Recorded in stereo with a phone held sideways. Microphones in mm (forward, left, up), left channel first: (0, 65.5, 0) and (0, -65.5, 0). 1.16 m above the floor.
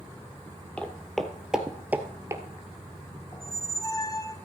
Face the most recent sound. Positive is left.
turn(degrees=25)  # may be behind; listen again after turning